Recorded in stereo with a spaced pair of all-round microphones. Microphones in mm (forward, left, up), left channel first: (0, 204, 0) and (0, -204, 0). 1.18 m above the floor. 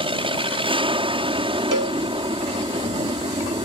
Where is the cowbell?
50° right (ahead or behind).